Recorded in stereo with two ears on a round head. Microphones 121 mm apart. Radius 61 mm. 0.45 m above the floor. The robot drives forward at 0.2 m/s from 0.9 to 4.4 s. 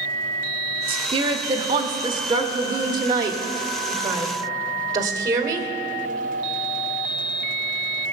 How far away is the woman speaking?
About 1.1 m.